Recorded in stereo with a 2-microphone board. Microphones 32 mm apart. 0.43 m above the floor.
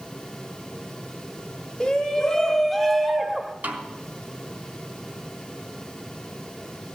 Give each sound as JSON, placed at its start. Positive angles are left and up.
{"t": 1.8, "sound": "a shout", "side_deg": 20, "distance_m": 1.3}
{"t": 3.6, "sound": "a snare drum", "side_deg": -65, "distance_m": 3.5}